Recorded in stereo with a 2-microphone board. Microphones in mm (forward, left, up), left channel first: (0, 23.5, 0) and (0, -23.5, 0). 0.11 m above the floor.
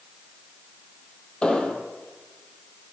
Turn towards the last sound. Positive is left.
turn(degrees=20)  # may be behind; listen again after turning